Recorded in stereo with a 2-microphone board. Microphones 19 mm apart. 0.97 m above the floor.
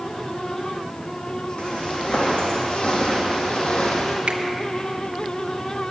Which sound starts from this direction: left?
Footsteps, at 1.6 s.